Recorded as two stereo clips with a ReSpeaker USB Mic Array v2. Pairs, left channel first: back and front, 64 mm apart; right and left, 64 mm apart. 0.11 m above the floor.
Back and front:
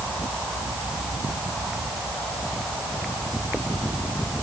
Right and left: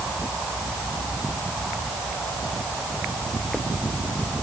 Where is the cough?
No cough in this recording.